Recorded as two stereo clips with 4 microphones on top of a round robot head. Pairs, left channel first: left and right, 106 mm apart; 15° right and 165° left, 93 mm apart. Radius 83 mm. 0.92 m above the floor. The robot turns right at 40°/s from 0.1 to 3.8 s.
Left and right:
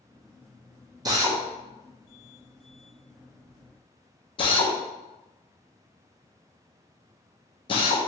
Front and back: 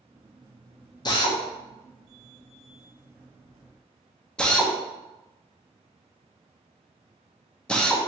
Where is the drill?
45° right, 0.7 m; by 8.0 s 65° left, 0.7 m.